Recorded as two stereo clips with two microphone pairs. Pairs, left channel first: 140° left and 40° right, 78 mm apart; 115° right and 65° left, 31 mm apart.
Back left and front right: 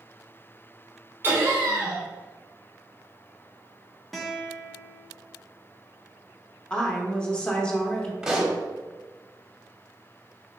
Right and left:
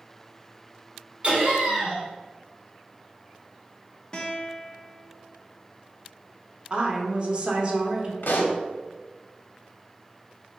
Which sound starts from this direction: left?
A woman speaking, at 6.7 s.